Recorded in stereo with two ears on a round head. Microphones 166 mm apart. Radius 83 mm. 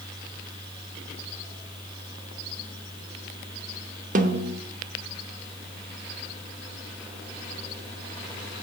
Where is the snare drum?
45° right (ahead or behind), 0.8 m.